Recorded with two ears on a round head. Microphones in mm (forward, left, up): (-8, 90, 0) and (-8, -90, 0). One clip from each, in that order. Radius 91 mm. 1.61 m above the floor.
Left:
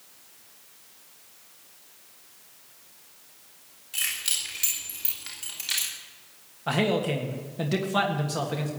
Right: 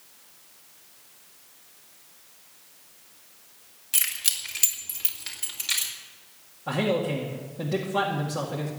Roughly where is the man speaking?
Left.